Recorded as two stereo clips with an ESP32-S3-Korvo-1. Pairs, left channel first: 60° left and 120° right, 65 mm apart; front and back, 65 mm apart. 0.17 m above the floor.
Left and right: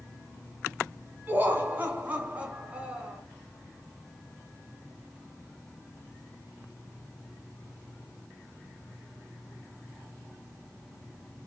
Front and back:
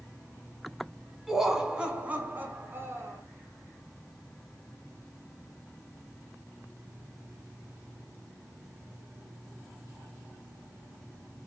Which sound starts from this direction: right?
Laughter, at 1.3 s.